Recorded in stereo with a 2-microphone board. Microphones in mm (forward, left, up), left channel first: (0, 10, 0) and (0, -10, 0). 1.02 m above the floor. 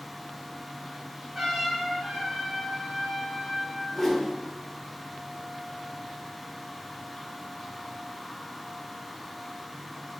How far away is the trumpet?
About 1.7 m.